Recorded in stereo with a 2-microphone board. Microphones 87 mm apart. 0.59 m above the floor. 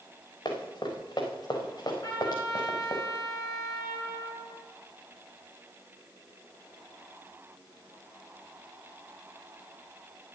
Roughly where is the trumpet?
Left.